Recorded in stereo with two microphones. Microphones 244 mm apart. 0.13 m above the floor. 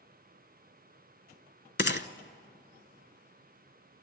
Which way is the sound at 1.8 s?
45° left (ahead or behind).